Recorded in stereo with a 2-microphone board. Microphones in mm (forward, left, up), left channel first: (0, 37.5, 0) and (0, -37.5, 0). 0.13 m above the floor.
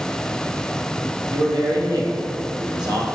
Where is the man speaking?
70° right (ahead or behind), 3 m.